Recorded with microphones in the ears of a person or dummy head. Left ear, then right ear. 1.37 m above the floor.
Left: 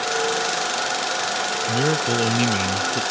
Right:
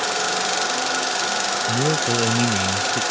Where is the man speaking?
15° left (ahead or behind).